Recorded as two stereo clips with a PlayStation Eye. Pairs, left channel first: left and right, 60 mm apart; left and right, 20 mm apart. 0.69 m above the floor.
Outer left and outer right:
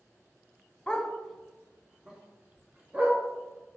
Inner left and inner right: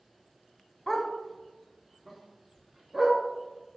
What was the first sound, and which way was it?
A dog barking, 15° left (ahead or behind).